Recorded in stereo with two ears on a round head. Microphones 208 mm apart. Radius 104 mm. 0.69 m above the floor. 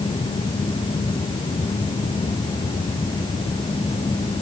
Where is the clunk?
I don't hear a clunk.